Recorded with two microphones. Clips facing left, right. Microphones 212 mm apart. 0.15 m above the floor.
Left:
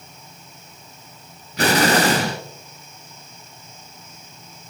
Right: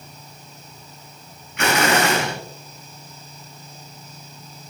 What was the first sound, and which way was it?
An explosion, 35° left (ahead or behind).